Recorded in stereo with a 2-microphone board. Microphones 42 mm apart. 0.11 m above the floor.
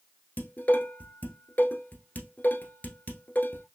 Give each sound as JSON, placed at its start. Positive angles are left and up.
{"t": 0.4, "sound": "dishes clattering", "side_deg": 40, "distance_m": 1.0}